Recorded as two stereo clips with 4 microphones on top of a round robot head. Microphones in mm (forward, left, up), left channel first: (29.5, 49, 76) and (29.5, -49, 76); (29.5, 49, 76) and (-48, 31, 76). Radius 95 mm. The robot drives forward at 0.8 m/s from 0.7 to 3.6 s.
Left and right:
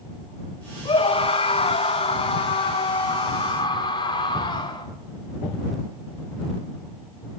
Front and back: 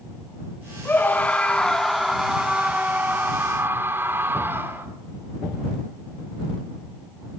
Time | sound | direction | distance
0.8 | a scream | 75° left | 2 m